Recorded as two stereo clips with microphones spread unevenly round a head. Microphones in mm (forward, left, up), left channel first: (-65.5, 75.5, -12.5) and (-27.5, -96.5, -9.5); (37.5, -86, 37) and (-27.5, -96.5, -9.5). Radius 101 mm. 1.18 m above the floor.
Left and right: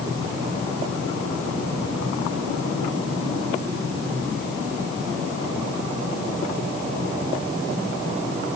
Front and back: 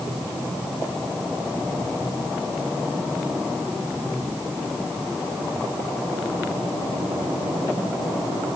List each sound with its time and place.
Only background noise.